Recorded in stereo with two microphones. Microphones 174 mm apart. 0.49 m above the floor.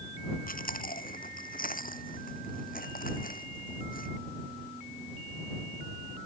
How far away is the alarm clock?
No alarm clock in this recording.